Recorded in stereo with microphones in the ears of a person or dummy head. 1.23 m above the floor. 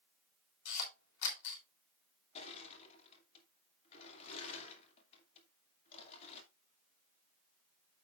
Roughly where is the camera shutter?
Left.